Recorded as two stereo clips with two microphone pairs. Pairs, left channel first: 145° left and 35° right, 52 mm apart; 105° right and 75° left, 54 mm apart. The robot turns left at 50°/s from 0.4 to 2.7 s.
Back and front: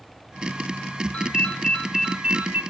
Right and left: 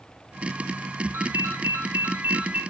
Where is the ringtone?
90° left, 1.2 m; by 2.6 s 15° left, 1.2 m.